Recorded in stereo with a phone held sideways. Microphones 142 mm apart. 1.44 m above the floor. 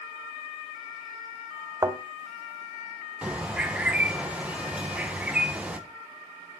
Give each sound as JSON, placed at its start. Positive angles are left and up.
{"t": 1.8, "sound": "a thud", "side_deg": -25, "distance_m": 2.5}
{"t": 3.2, "sound": "a bird", "side_deg": -10, "distance_m": 1.3}